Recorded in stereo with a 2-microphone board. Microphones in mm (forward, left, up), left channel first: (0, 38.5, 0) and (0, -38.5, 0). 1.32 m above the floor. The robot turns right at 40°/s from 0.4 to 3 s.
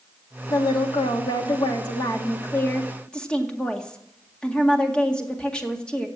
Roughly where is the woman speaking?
Left.